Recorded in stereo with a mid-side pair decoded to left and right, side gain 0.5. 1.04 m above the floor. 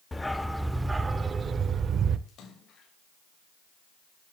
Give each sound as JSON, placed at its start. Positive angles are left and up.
{"t": 0.1, "sound": "a dog barking", "azimuth_deg": 15, "distance_m": 1.4}
{"t": 2.3, "sound": "a splash", "azimuth_deg": 60, "distance_m": 6.0}